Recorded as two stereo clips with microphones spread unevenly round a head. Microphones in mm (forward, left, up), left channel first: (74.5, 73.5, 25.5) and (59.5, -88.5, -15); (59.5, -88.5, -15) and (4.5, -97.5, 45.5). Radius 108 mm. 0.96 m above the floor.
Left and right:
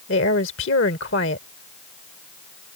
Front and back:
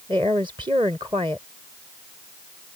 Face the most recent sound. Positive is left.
turn(degrees=120)